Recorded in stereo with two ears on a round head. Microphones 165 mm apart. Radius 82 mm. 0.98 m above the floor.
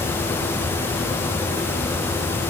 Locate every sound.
Only background noise.